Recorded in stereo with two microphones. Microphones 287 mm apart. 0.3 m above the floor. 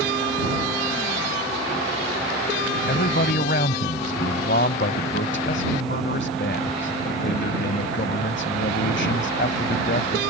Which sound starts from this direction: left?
A man speaking, at 2.9 s.